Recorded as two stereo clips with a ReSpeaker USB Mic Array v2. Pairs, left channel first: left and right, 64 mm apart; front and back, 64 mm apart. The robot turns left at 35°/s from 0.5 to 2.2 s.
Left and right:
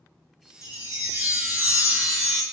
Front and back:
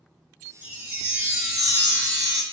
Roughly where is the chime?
Behind right.